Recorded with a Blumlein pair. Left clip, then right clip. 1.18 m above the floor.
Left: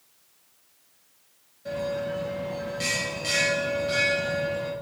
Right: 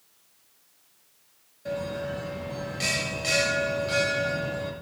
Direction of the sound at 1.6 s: 10° right.